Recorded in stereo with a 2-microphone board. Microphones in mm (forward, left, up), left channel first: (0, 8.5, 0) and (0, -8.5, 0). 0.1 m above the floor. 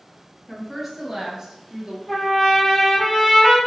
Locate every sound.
0.5 s a woman speaking: 5° left (ahead or behind), 1.6 m; by 2.0 s 40° right (ahead or behind), 1.6 m
2.1 s a trumpet: 15° left (ahead or behind), 1.4 m